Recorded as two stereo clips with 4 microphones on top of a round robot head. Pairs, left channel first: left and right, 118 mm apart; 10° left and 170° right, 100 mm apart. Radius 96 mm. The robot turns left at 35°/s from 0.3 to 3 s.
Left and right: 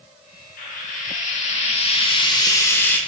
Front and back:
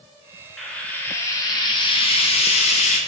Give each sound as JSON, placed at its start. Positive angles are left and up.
{"t": 0.6, "sound": "frying", "azimuth_deg": 95, "distance_m": 0.5}